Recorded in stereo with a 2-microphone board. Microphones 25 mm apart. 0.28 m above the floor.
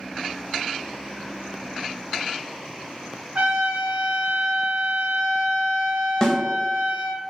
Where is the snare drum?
25° left (ahead or behind), 0.6 m.